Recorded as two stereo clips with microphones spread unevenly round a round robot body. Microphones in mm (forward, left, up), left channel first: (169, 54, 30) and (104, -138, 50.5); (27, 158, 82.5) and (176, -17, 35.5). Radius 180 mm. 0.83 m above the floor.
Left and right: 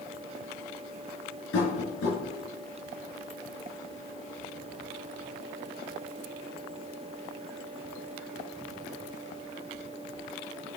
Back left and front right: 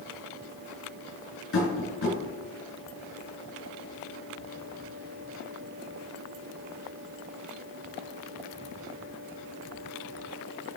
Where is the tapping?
110° left, 4 m.